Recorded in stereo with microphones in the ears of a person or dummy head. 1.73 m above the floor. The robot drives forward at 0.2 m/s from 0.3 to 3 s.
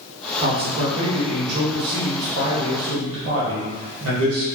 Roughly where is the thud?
No thud in this recording.